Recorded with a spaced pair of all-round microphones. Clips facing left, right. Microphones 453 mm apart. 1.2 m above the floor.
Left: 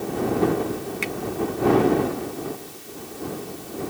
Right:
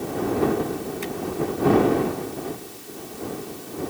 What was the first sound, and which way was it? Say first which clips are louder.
A finger snap: even; 80° left.